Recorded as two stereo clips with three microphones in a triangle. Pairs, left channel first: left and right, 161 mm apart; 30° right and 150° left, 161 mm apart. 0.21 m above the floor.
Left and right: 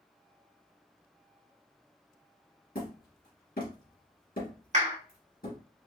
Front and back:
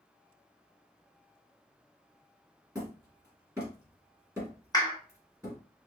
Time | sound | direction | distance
2.8 | hammering | 80° left | 2.5 m
4.7 | a clap | 90° right | 1.7 m